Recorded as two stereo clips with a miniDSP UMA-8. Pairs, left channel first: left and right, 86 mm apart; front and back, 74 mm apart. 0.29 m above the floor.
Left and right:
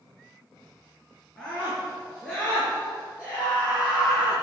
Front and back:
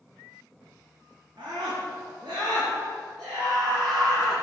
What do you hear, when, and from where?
1.4 s a scream: 170° left, 6 m